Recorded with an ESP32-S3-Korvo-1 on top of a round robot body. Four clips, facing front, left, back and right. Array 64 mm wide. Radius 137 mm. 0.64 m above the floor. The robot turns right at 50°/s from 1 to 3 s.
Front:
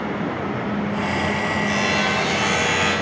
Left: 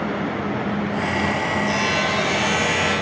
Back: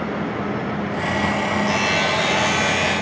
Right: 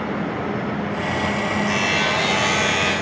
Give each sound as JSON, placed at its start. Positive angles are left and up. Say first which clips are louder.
{"t": 1.7, "sound": "a buzzer", "louder": "even, back 1 dB", "azimuth_deg": -135, "distance_m": 8.0}